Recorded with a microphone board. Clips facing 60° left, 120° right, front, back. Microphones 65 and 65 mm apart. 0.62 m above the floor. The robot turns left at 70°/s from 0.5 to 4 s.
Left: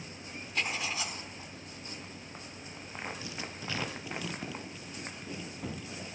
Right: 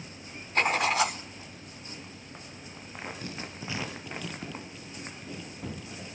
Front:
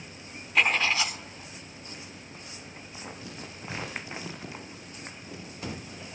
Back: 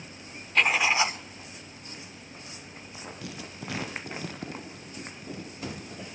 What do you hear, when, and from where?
0.6 s writing: 85° right, 1.2 m; by 1.2 s 130° right, 1.2 m
3.2 s writing: 155° right, 5.5 m; by 6.2 s 150° left, 5.5 m